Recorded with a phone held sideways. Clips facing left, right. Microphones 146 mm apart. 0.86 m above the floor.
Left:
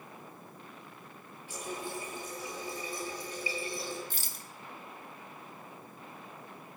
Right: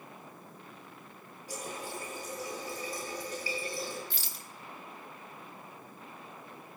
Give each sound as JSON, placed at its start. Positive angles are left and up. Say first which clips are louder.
{"t": 1.5, "sound": "a running tap", "louder": "left 1 dB", "side_deg": -40, "distance_m": 9.0}
{"t": 4.1, "sound": "a rattle", "louder": "even", "side_deg": 50, "distance_m": 1.0}